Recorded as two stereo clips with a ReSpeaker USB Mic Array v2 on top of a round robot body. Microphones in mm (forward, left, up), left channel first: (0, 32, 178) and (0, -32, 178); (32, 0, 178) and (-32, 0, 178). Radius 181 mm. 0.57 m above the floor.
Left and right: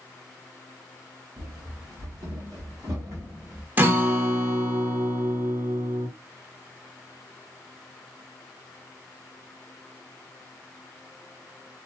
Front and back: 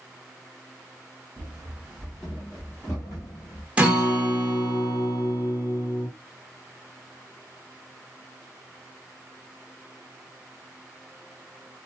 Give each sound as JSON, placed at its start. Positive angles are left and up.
{"t": 1.4, "sound": "running footsteps", "azimuth_deg": -105, "distance_m": 1.1}
{"t": 3.8, "sound": "a guitar", "azimuth_deg": -120, "distance_m": 1.2}